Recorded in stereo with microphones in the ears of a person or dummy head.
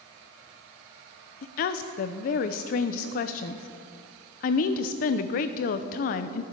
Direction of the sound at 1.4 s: 45° left (ahead or behind).